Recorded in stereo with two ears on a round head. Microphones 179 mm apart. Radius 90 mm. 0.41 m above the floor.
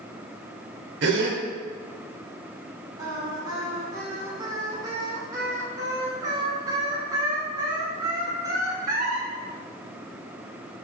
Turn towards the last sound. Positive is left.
turn(degrees=-20)  # may be behind; listen again after turning